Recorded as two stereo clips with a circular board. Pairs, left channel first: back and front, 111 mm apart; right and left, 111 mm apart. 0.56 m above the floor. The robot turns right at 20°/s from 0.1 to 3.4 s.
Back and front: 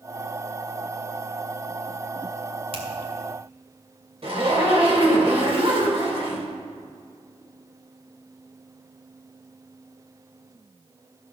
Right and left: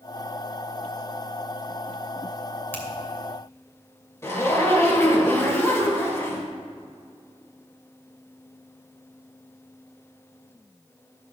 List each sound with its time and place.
2.7 s a finger snap: 20° right, 2.5 m; by 2.9 s 15° right, 2.5 m
4.2 s a zipper: 25° right, 2.5 m